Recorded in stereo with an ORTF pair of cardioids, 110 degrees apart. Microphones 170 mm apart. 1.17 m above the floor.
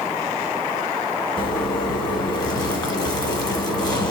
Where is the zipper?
25° left, 1.3 m.